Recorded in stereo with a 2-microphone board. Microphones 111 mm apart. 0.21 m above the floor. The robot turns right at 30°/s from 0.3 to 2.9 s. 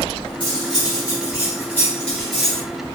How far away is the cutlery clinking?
About 1.1 m.